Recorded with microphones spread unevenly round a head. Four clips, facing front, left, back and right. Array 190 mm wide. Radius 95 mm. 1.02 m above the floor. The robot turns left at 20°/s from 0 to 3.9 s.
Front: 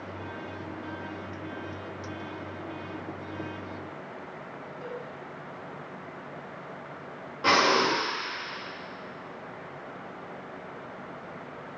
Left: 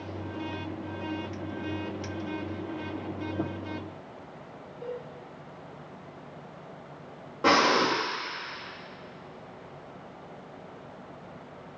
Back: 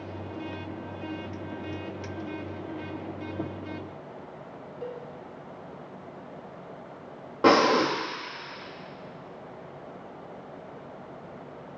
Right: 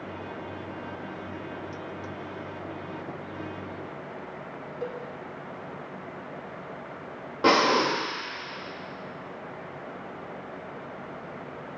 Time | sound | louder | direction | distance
4.8 | a cowbell | right 2 dB, back 2 dB | 90° right | 1.7 m
7.4 | breathing | right 1 dB, back 3 dB | 170° right | 1.6 m